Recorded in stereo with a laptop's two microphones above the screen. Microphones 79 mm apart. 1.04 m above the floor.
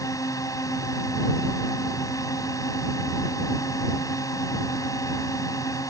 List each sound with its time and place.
0.0 s a drone: 45° left (ahead or behind)